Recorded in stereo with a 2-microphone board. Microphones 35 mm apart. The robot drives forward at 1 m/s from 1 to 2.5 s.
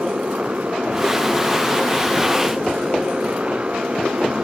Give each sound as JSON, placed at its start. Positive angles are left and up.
{"t": 0.0, "sound": "a motorcycle", "side_deg": -40}